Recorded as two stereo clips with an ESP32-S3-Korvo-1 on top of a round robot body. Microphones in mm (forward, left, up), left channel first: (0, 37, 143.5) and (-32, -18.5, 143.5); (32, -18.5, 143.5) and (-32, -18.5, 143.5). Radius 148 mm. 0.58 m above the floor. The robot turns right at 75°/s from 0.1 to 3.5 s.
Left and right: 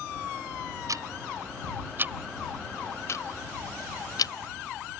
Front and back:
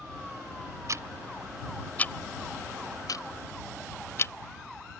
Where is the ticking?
145° right; by 4.3 s 50° left.